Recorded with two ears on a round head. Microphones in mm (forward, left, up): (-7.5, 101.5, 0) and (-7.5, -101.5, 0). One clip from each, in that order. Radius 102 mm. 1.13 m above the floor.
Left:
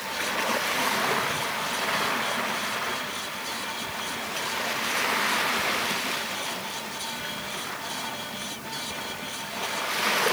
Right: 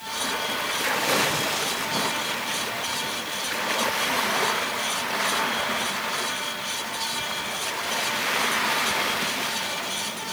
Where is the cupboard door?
I don't hear a cupboard door.